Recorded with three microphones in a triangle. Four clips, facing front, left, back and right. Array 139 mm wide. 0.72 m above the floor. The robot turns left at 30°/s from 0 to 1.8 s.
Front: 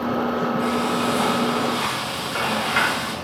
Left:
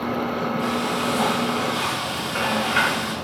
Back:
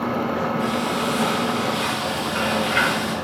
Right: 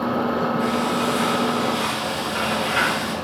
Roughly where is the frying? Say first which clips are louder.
Right 2 dB, front 1 dB; left.